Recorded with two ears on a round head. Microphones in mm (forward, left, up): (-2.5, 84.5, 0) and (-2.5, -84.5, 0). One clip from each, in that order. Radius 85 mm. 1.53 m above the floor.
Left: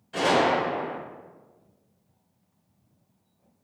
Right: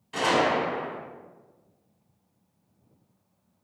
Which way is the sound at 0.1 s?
20° right (ahead or behind).